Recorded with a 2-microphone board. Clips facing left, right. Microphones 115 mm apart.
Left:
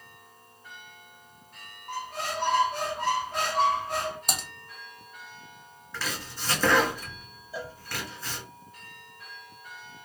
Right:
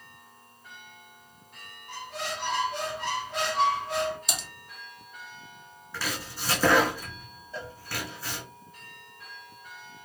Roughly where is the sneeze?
I don't hear a sneeze.